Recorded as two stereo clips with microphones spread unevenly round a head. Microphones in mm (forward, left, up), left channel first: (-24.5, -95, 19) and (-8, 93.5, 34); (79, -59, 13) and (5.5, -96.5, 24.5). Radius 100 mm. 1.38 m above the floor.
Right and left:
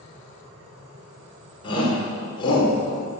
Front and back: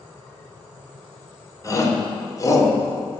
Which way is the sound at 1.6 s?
25° right.